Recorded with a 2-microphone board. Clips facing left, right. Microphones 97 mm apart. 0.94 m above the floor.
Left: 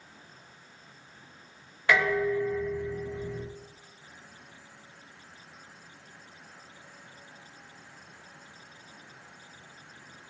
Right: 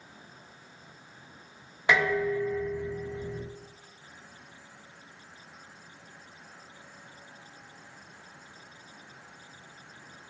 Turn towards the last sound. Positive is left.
turn(degrees=-15)  # may be behind; listen again after turning